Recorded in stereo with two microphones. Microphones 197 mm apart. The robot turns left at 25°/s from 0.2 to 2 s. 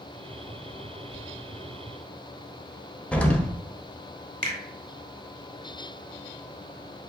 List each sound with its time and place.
1.1 s whispering: 30° left (ahead or behind), 1.7 m
3.1 s an explosion: 5° left (ahead or behind), 0.6 m
4.4 s a finger snap: 40° right (ahead or behind), 1.1 m